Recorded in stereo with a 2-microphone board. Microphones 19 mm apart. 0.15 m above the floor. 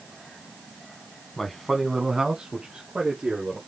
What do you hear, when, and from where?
1.4 s a man speaking: 20° left (ahead or behind), 1.1 m; by 3.6 s 60° right (ahead or behind), 2 m